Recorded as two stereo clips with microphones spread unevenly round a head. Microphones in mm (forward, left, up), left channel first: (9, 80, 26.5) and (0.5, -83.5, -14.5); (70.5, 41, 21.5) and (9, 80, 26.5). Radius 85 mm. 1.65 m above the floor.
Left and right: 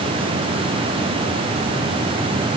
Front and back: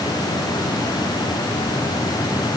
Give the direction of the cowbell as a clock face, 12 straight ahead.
No cowbell in this recording.